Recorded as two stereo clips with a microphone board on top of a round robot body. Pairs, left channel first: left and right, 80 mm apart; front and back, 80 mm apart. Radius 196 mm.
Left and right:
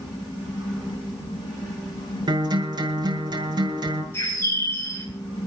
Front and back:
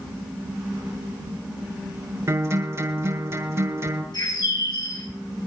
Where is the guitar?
125° right, 6 m.